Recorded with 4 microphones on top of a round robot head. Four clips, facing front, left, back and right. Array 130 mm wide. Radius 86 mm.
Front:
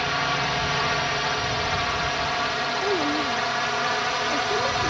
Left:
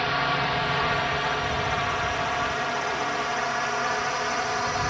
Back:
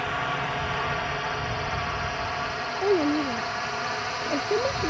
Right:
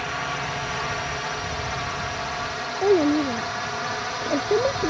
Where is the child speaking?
105° right.